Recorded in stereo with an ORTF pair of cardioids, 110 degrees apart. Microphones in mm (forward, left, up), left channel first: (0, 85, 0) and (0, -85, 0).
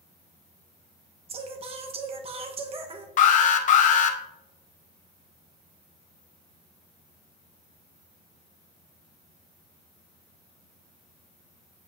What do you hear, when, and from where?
1.3 s singing: 40° right, 1.0 m
3.2 s an alarm: 50° left, 1.0 m